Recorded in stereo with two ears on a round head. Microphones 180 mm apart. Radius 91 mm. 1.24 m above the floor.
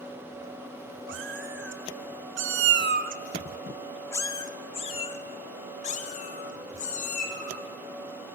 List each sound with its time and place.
1.1 s a cat meowing: 60° right (ahead or behind), 2.5 m; by 8.4 s 45° left (ahead or behind), 5.5 m